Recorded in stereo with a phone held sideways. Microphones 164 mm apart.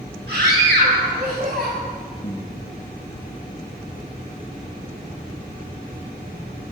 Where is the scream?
85° right, 9 m.